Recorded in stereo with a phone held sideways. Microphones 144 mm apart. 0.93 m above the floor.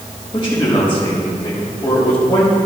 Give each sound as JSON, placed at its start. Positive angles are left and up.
{"t": 0.3, "sound": "a man speaking", "side_deg": 35, "distance_m": 4.5}